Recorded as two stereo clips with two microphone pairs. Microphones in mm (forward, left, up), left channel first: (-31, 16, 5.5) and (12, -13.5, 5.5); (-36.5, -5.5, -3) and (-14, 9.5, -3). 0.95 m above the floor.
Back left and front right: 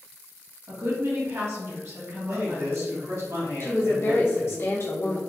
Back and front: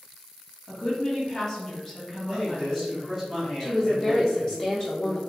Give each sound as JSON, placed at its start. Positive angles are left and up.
{"t": 0.7, "sound": "a woman speaking", "azimuth_deg": -75, "distance_m": 1.5}
{"t": 2.3, "sound": "a man speaking", "azimuth_deg": -50, "distance_m": 1.7}
{"t": 3.6, "sound": "a woman speaking", "azimuth_deg": 160, "distance_m": 1.2}